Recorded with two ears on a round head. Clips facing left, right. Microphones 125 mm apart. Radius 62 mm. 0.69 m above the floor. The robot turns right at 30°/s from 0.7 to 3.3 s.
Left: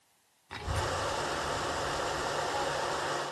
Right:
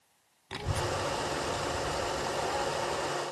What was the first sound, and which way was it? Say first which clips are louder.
A child speaking: right 1 dB; 35° right (ahead or behind).